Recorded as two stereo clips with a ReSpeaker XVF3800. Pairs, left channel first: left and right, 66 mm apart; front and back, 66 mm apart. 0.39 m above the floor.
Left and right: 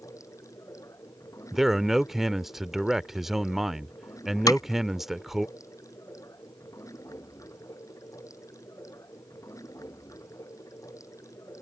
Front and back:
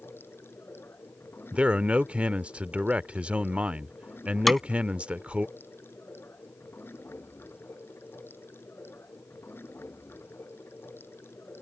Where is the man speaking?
165° right.